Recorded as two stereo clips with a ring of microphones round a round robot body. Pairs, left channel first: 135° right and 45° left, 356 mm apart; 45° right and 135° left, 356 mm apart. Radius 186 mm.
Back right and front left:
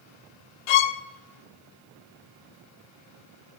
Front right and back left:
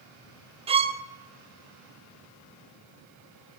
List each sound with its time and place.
0.7 s a violin: 150° right, 0.8 m